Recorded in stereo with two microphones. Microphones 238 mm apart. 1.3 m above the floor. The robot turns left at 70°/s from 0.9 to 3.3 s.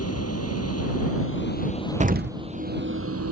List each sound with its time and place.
0.0 s a vehicle: 90° left; by 3.3 s 85° right
2.0 s an explosion: 30° right (ahead or behind); by 2.4 s 55° right (ahead or behind)